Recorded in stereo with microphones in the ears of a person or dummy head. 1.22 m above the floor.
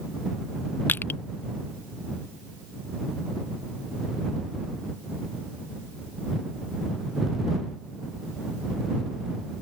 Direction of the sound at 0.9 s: 10° left (ahead or behind).